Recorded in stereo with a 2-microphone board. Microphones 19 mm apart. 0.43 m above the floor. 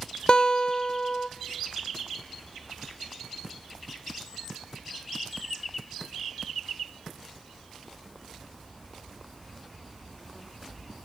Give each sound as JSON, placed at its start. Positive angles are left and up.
{"t": 0.3, "sound": "a guitar", "side_deg": 50, "distance_m": 1.2}